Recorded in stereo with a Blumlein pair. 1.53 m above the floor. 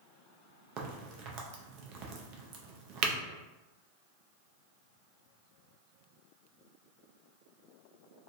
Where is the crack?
40° right, 0.5 m.